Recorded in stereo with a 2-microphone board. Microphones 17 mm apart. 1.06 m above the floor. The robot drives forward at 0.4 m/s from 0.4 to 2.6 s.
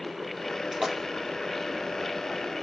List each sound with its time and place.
0.7 s a splash: 30° right (ahead or behind), 2.5 m